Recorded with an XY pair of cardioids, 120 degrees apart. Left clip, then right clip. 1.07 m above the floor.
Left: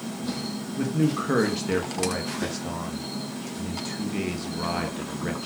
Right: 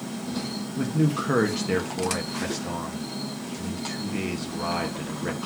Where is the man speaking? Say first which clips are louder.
Even; straight ahead, 1.0 m.